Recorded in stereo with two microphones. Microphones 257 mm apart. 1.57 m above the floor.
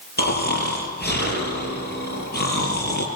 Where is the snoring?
40° left (ahead or behind), 6.5 m.